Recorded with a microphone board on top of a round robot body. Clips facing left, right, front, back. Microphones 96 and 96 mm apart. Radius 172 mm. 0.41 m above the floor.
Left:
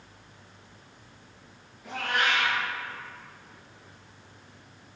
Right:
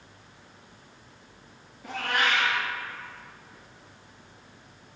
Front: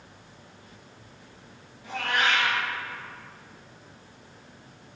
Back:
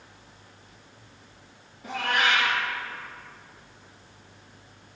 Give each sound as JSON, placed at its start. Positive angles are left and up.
{"t": 1.8, "sound": "a cat meowing", "azimuth_deg": -135, "distance_m": 2.0}